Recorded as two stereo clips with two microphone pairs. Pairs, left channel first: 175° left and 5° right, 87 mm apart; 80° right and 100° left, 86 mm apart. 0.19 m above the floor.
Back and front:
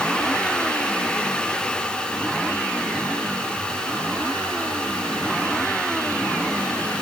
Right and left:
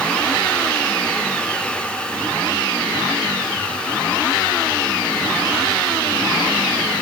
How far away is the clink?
No clink in this recording.